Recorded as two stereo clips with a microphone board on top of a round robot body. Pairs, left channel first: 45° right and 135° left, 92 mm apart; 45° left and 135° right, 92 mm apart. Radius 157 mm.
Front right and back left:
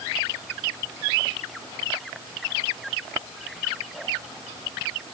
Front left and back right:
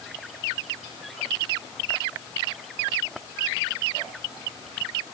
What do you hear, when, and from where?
Only background noise.